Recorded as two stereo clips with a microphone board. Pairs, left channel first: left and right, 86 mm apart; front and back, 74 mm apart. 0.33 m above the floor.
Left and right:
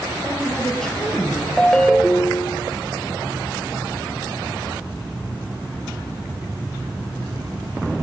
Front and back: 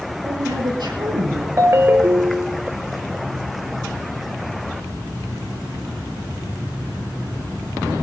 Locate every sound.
0.2 s a woman speaking: 165° left, 5.5 m; by 1.5 s straight behind, 6 m
1.6 s a ringtone: 165° left, 0.8 m